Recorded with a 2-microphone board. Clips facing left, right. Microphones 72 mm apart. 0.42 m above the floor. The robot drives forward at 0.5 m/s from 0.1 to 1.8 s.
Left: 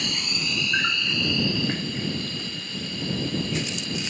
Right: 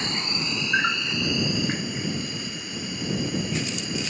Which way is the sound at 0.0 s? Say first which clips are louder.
Right 1 dB; 30° right (ahead or behind).